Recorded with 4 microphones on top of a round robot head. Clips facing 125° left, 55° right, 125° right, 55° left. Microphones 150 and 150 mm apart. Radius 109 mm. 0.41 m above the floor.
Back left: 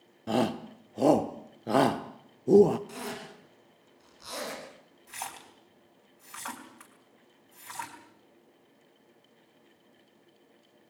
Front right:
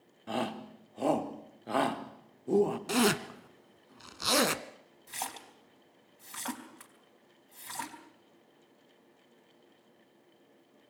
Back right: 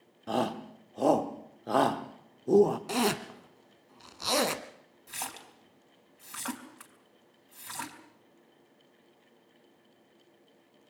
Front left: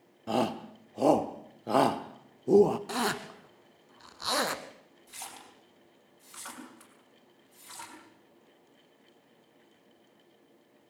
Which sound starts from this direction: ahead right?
A zipper, at 2.9 s.